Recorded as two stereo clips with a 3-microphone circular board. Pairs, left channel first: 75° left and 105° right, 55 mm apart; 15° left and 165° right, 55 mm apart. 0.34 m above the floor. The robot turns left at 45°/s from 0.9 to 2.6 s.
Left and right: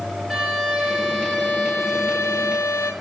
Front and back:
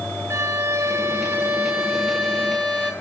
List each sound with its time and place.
0.3 s a violin: 165° left, 5 m; by 2.9 s 90° left, 5 m